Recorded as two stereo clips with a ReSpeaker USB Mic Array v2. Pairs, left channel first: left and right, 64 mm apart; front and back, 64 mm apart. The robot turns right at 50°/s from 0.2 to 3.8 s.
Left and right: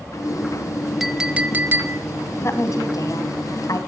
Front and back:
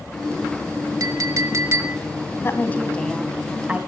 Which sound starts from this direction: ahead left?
A woman speaking, at 2.4 s.